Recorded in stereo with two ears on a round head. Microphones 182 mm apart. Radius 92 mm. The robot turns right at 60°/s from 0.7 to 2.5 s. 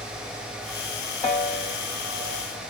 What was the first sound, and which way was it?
A piano, 10° left (ahead or behind).